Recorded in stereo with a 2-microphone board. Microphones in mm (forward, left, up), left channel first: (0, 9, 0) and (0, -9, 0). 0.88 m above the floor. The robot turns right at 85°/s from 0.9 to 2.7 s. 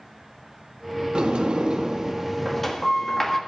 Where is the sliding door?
115° right, 1.4 m; by 3.4 s 20° left, 1.4 m.